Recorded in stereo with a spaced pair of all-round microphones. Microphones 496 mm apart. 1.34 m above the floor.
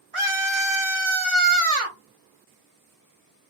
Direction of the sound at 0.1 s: 80° right.